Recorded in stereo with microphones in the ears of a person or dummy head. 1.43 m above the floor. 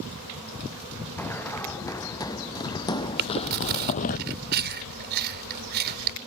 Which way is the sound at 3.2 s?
60° right (ahead or behind).